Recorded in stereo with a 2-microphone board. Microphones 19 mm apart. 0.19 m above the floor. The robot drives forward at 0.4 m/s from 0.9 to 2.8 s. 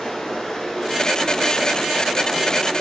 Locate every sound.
0.0 s running water: 45° left (ahead or behind), 2.5 m; by 2.8 s 40° left (ahead or behind), 3 m